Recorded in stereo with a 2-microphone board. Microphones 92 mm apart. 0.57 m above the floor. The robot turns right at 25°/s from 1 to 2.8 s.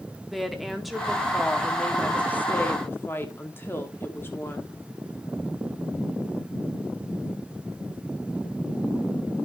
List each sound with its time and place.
0.3 s a woman speaking: straight ahead, 1.2 m; by 4.7 s 45° left, 1.2 m